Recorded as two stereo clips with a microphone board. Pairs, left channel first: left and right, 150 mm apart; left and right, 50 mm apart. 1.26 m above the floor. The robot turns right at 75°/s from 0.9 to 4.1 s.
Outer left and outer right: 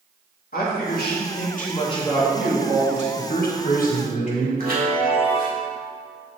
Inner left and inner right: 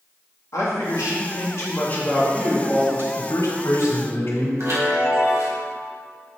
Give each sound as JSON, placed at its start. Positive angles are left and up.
{"t": 0.5, "sound": "a man speaking", "azimuth_deg": 70, "distance_m": 2.0}
{"t": 3.2, "sound": "a man speaking", "azimuth_deg": 55, "distance_m": 1.6}
{"t": 4.6, "sound": "a chime", "side_deg": -65, "distance_m": 2.5}